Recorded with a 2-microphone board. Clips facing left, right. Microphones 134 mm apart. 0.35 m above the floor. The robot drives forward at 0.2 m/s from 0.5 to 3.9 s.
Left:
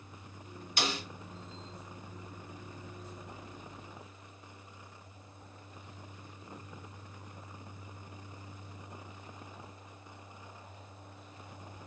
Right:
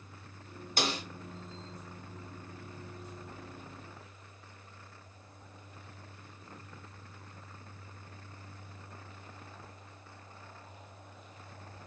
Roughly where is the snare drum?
Right.